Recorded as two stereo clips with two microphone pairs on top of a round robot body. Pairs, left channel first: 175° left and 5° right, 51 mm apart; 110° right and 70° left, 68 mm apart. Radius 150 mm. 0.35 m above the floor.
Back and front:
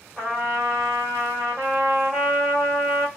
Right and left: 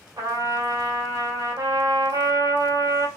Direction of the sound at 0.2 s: 75° left.